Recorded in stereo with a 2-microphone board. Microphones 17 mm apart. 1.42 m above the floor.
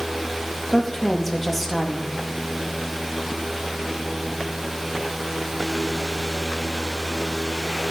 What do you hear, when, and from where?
0.7 s a woman speaking: 10° left (ahead or behind), 2 m